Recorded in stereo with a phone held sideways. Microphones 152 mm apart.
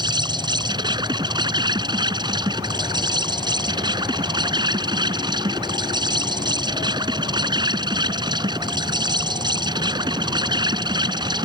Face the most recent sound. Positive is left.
turn(degrees=-30)  # may be behind; listen again after turning